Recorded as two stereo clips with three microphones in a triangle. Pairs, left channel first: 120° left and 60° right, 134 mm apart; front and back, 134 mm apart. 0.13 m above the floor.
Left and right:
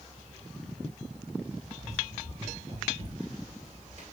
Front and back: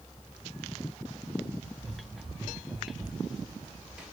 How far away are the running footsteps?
About 9.5 m.